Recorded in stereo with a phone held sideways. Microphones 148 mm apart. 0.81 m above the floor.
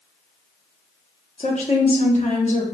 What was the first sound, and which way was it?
A woman speaking, 50° left (ahead or behind).